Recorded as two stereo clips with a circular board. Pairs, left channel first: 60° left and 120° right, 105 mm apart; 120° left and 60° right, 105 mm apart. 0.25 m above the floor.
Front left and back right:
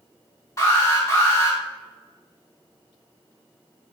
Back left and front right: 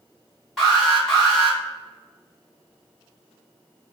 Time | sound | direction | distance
0.6 | an alarm | 25° left | 1.8 m